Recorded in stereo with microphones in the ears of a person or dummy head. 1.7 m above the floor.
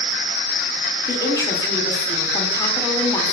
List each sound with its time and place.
1.1 s a woman speaking: 25° left (ahead or behind), 0.6 m